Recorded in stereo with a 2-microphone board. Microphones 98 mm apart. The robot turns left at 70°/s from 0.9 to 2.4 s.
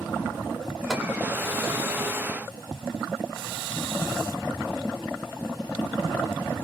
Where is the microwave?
Centre (ahead or behind), 0.7 m; by 1.1 s 5° right (ahead or behind), 0.7 m.